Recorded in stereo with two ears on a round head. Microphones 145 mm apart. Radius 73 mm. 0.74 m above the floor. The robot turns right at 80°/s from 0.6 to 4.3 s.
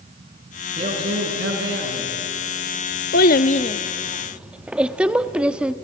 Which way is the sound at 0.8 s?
140° right.